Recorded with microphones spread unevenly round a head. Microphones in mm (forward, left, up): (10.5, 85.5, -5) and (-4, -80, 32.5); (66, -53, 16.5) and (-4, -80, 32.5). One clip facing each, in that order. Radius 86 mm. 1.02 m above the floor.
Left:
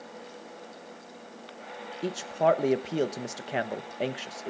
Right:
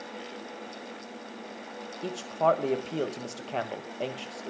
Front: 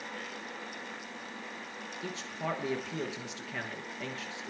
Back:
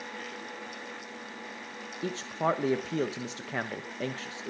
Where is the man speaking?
140° left, 1.1 m.